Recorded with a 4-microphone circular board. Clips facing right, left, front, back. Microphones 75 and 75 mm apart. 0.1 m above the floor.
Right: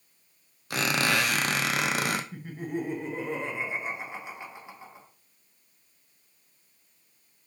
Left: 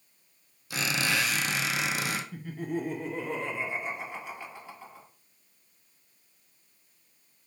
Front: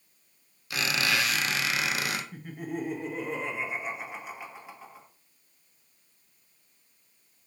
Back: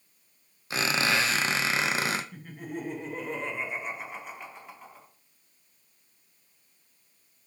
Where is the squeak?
120° right, 0.6 m.